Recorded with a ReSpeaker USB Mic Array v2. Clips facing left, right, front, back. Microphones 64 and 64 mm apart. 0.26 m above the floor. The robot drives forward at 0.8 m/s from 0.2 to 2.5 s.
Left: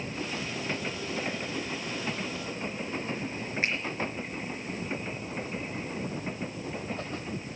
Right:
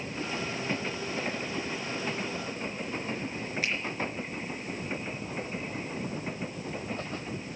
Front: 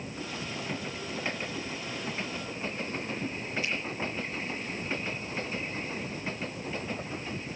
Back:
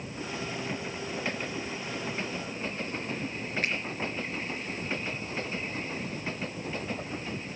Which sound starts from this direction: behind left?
A finger snap, at 3.6 s.